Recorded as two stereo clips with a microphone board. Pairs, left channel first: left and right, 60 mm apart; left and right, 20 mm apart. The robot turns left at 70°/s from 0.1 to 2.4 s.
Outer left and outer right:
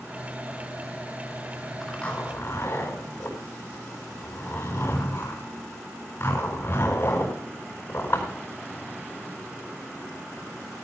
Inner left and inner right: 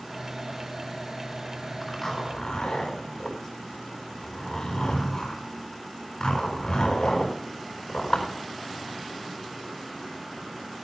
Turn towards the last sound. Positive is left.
turn(degrees=45)  # may be behind; listen again after turning